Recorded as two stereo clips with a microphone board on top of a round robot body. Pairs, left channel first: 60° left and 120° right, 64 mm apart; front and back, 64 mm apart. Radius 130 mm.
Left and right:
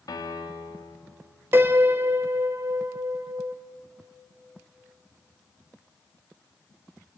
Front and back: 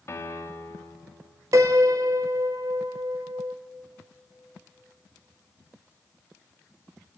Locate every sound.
0.1 s a piano: 45° left, 1.7 m
1.5 s a piano: 165° right, 1.3 m